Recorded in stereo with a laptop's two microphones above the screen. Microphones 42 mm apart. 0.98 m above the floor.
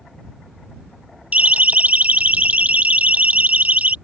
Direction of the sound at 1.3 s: 40° right (ahead or behind).